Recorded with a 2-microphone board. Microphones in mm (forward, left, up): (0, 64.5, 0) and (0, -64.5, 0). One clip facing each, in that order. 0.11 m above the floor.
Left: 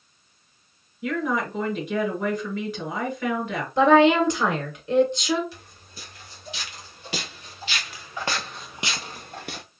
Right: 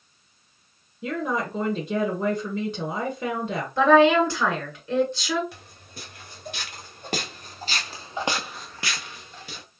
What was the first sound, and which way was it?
A woman speaking, 30° right (ahead or behind).